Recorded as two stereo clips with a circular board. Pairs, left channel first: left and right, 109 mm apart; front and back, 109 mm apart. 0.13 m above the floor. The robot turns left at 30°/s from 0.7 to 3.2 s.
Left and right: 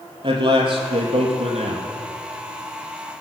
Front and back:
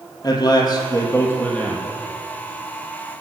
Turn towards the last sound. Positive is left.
turn(degrees=-125)